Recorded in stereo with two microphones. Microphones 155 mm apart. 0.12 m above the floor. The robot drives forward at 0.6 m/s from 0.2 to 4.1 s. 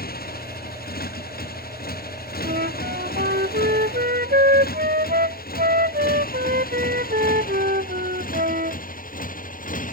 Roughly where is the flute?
Right.